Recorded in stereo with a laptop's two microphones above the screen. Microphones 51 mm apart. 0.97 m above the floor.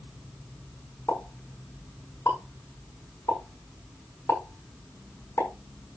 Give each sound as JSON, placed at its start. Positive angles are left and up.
{"t": 1.1, "sound": "a pop", "side_deg": 60, "distance_m": 6.0}